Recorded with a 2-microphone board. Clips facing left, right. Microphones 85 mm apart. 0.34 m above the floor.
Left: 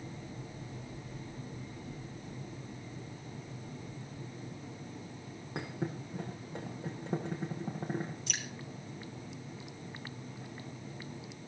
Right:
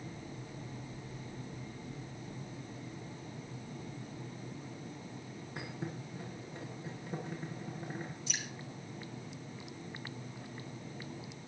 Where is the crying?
No crying in this recording.